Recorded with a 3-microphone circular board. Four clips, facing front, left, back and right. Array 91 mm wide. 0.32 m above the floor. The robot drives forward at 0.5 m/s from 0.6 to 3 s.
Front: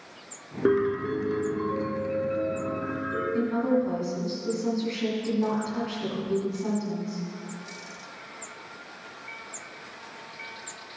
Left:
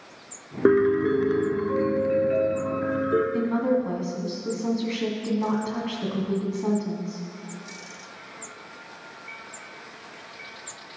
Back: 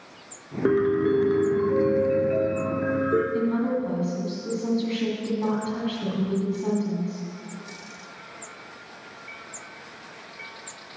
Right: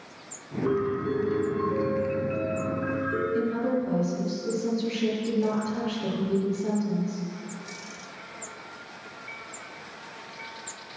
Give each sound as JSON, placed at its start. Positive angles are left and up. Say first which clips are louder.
{"t": 0.7, "sound": "a piano", "louder": "left 8 dB, back 3 dB", "azimuth_deg": 85, "distance_m": 0.8}
{"t": 3.3, "sound": "a woman speaking", "louder": "left 3 dB, even", "azimuth_deg": 105, "distance_m": 2.0}